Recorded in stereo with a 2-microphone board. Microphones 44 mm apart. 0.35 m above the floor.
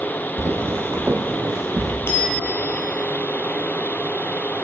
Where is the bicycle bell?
65° left (ahead or behind), 3 m.